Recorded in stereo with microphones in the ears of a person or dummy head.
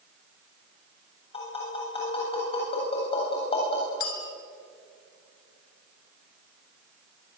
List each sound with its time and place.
1.3 s tapping: 35° left (ahead or behind), 7.5 m
4.0 s a clink: 60° left (ahead or behind), 3 m